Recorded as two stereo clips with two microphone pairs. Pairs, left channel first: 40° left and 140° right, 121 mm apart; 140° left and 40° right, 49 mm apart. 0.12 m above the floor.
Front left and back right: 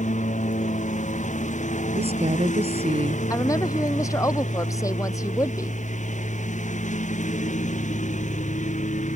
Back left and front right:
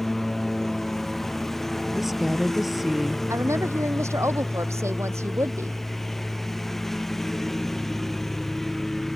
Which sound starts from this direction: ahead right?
A woman speaking, at 3.3 s.